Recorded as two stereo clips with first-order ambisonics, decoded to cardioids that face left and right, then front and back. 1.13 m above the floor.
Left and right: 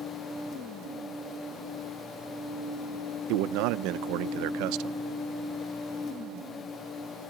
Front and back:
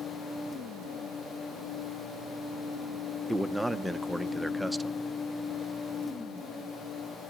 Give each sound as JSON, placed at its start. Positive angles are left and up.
{"t": 3.3, "sound": "a man speaking", "azimuth_deg": -90, "distance_m": 0.6}